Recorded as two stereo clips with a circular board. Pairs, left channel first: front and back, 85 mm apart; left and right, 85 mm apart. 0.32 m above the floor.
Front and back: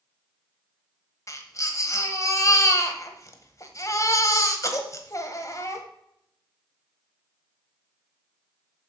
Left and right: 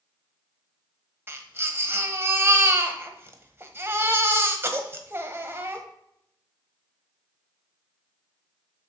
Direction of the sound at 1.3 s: 35° right.